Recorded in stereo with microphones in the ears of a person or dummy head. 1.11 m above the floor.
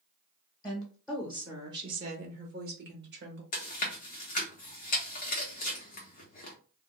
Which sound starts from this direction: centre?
A woman speaking, at 0.6 s.